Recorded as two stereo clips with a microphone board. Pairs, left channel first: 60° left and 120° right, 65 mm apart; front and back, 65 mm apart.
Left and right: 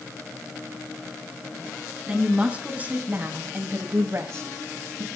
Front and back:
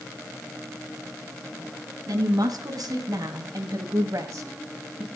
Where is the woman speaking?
160° left, 2.5 m; by 5.1 s 125° right, 1.9 m.